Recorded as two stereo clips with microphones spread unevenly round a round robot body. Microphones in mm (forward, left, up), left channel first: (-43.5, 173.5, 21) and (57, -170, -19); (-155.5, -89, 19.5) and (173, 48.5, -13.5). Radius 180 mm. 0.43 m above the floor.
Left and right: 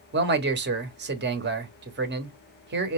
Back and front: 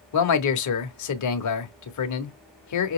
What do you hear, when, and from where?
0.1 s a man speaking: 125° right, 1.2 m